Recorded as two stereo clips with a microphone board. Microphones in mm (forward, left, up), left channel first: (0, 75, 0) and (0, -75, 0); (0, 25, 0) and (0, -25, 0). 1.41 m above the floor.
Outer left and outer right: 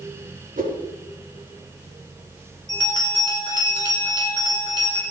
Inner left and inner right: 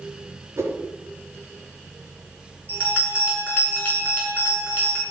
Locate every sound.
0.6 s a whoosh: 60° right (ahead or behind), 5 m
2.7 s a bell: 30° left (ahead or behind), 6.5 m